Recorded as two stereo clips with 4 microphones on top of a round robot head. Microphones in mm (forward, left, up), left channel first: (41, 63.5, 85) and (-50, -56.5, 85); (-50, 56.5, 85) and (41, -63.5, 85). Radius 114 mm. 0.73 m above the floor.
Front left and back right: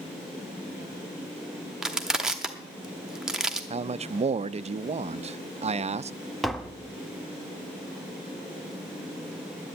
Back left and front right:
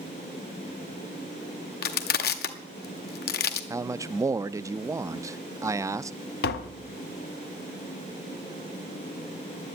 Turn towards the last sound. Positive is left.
turn(degrees=140)